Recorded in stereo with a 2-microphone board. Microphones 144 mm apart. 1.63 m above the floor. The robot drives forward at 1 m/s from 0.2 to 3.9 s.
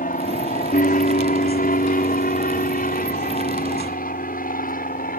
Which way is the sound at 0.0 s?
70° left (ahead or behind).